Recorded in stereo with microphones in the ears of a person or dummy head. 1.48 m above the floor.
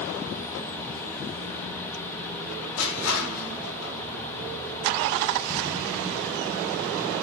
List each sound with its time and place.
2.8 s crushing: 85° left, 5 m